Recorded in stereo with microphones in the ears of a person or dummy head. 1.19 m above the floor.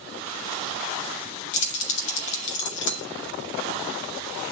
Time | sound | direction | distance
1.5 | keys jangling | 70° left (ahead or behind) | 2.0 m